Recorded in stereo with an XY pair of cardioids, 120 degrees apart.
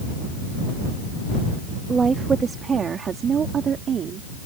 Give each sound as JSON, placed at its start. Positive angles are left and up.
{"t": 1.9, "sound": "a woman speaking", "azimuth_deg": -30}